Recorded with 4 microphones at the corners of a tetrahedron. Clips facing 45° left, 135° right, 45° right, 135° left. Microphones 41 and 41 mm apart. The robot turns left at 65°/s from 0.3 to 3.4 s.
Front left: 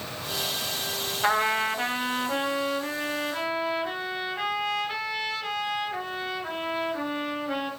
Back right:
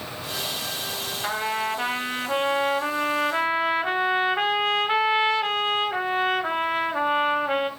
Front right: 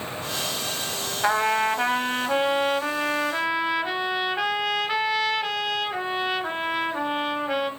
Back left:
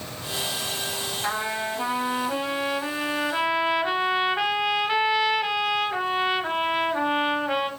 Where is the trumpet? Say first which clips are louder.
Front left 3 dB, front right 8 dB; 10° right, 1.6 m; by 7.7 s 150° right, 1.6 m.